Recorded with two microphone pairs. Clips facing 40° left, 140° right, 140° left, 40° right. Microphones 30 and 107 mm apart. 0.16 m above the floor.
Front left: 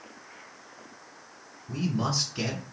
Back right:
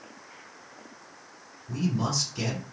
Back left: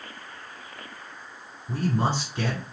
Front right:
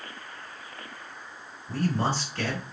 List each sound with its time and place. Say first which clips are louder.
1.7 s a man speaking: even, back left 1 dB; 100° left, 1.8 m